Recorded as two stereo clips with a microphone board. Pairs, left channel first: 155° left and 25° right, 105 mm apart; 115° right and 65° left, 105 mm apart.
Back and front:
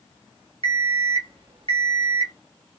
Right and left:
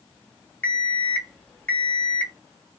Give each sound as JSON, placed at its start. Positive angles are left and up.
{"t": 0.6, "sound": "an alarm clock", "azimuth_deg": -40, "distance_m": 1.1}